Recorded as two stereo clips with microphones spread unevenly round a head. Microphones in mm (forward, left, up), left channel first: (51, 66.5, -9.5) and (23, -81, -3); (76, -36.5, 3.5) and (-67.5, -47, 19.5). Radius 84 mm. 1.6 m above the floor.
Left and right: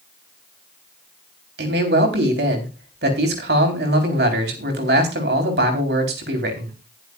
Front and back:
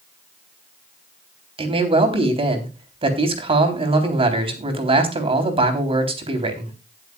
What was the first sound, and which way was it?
A man speaking, 125° right.